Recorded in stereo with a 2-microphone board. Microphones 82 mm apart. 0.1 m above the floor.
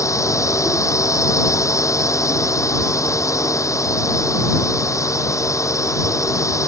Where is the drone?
40° left (ahead or behind).